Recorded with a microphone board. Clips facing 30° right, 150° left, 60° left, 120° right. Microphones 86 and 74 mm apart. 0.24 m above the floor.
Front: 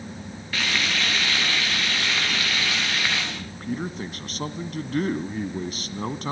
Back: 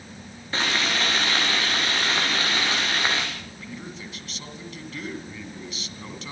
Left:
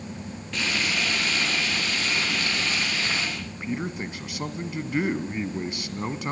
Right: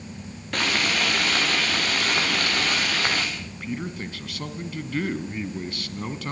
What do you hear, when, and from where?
0.5 s frying: 150° right, 8 m
3.4 s a man speaking: 5° right, 1.9 m